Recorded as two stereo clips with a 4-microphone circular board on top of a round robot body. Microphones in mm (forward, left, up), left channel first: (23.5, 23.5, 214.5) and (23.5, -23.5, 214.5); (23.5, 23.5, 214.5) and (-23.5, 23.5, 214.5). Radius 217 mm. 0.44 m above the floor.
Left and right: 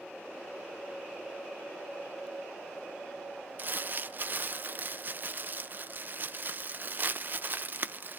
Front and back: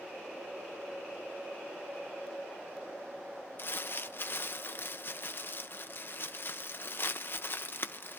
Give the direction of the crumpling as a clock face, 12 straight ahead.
1 o'clock.